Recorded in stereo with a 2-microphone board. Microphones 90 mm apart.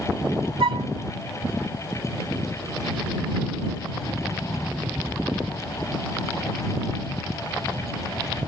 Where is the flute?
70° right (ahead or behind).